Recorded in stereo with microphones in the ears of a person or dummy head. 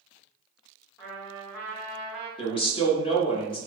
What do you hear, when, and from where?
1.0 s a trumpet: 15° left (ahead or behind), 0.7 m
2.4 s a man speaking: 30° left (ahead or behind), 0.6 m